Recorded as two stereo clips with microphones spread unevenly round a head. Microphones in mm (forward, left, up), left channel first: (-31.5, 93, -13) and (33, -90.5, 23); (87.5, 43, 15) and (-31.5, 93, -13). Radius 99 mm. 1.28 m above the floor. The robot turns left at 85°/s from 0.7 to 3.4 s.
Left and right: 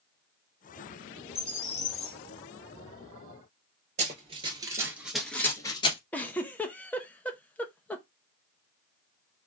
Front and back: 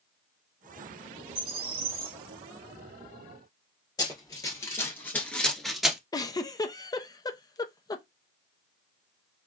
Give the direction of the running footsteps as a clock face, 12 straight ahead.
2 o'clock.